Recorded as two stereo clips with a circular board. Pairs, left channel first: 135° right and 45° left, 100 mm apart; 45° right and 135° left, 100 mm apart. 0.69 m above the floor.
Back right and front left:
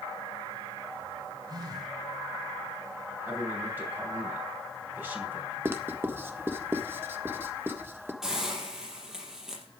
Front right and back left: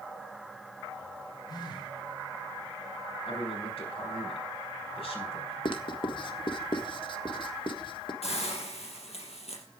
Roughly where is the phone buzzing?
Ahead.